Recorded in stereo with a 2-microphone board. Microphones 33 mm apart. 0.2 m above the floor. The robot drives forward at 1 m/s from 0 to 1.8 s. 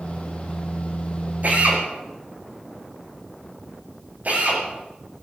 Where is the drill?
55° right (ahead or behind), 8 m.